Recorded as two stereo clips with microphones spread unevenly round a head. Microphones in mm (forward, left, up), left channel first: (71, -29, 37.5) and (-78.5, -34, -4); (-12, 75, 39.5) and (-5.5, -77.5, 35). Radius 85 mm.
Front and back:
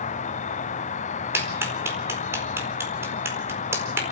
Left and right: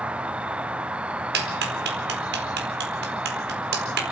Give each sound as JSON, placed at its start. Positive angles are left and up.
{"t": 0.0, "sound": "an insect", "azimuth_deg": -15, "distance_m": 0.8}
{"t": 1.3, "sound": "a clap", "azimuth_deg": -100, "distance_m": 4.5}